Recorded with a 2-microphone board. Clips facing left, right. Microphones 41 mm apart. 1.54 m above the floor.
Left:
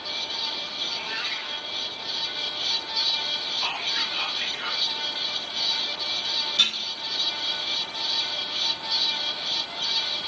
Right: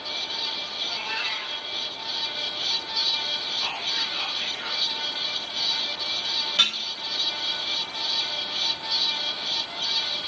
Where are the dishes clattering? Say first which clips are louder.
Right 1 dB; 55° right (ahead or behind), 1.6 m.